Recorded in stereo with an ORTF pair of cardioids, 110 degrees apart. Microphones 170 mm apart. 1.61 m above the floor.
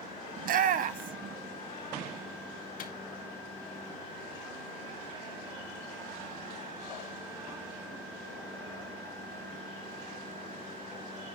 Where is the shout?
55° right, 1.1 m.